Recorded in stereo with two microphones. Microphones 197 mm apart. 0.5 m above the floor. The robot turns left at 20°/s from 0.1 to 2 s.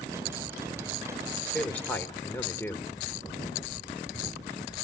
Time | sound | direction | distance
1.5 | a man speaking | 5° left (ahead or behind) | 1.6 m